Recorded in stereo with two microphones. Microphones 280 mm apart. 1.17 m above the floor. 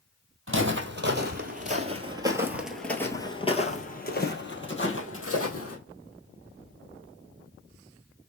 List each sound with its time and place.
0.5 s footsteps: 45° right (ahead or behind), 1.7 m; by 5.8 s 55° left (ahead or behind), 2.0 m